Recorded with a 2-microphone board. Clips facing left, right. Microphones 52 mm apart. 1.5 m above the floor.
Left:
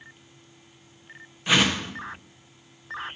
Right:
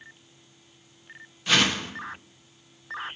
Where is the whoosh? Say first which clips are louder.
Left 1 dB; 15° left (ahead or behind), 1.3 m.